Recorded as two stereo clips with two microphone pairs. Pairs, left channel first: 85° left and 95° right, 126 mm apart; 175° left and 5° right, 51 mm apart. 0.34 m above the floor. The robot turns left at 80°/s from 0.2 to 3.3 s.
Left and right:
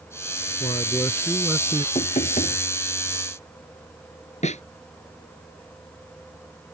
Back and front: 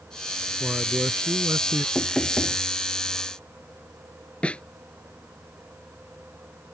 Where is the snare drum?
110° left.